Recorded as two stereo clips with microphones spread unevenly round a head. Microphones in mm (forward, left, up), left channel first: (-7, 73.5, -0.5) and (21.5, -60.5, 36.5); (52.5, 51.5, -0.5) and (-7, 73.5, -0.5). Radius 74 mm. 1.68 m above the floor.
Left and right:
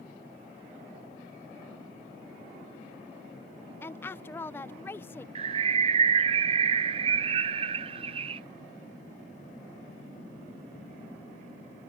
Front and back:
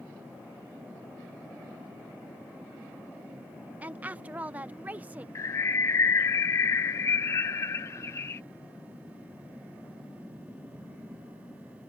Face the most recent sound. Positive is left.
turn(degrees=-65)